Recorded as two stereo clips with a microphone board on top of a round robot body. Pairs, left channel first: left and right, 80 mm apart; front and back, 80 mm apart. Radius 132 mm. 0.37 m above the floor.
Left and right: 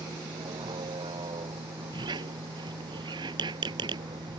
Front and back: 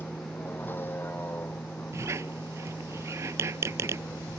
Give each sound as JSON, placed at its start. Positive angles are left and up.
{"t": 0.0, "sound": "a vehicle", "azimuth_deg": -65}
{"t": 1.9, "sound": "a squeak", "azimuth_deg": -120}